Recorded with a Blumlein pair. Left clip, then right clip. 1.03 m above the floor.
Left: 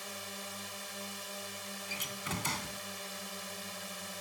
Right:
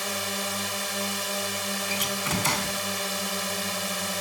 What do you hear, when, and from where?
0.0 s a drone: 35° right
1.9 s a door slam: 65° right